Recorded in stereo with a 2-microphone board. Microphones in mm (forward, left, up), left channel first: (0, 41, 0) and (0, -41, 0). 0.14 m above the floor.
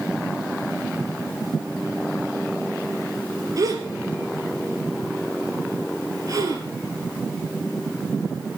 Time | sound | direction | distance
3.6 | a gasp | 50° right (ahead or behind) | 2.5 m